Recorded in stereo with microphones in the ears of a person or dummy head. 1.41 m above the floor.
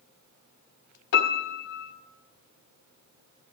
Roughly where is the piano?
Left.